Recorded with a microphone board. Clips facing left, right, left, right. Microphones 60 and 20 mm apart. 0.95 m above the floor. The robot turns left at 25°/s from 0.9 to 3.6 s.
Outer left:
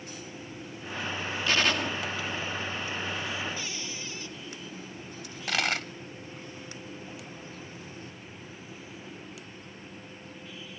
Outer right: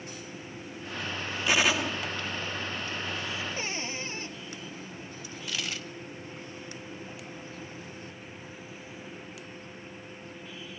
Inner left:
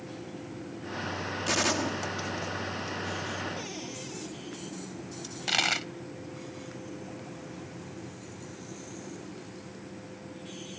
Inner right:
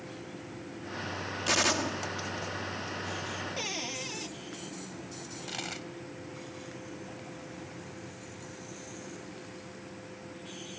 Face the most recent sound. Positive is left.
turn(degrees=65)  # may be behind; listen again after turning